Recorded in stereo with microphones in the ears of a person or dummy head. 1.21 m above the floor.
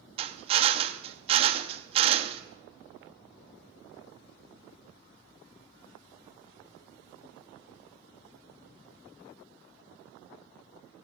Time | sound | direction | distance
0.2 | a drill | 30° right (ahead or behind) | 0.5 m